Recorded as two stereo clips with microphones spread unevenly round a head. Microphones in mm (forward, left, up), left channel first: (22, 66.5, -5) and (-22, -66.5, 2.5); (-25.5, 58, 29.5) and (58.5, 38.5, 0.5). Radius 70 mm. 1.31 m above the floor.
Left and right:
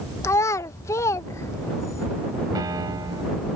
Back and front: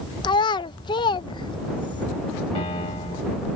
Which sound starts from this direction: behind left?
A child speaking, at 0.2 s.